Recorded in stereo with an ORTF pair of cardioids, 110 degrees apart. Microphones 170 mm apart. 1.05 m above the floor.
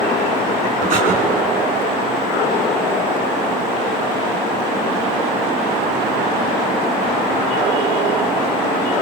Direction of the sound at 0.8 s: 55° right.